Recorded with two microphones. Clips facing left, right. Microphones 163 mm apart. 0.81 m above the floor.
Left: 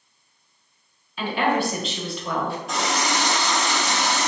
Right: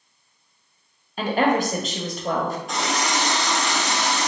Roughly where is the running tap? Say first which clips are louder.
Even; centre.